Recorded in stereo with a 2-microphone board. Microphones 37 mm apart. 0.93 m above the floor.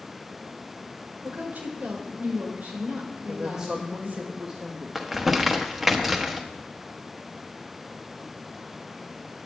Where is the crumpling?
5° right (ahead or behind), 1.0 m.